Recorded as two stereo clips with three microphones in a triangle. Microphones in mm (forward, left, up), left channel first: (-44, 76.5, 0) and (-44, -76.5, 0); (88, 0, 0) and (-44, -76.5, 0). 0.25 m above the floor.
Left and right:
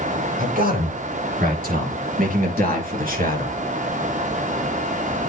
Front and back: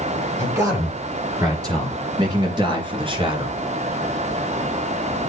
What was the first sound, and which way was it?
A man speaking, 80° right.